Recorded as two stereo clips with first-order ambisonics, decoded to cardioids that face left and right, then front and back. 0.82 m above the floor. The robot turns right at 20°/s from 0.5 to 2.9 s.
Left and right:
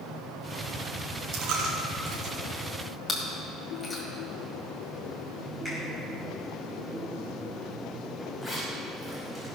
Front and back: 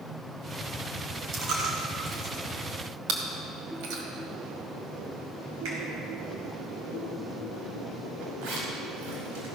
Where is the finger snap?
160° right, 5 m.